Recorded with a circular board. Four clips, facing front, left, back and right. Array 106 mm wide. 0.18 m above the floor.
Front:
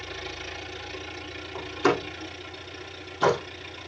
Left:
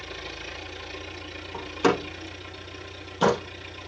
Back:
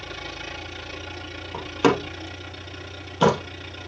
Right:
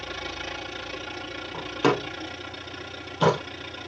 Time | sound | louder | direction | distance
0.0 | an engine running | right 4 dB, back 1 dB | 125° right | 7 m
1.5 | a door slam | even, back 4 dB | 170° right | 3 m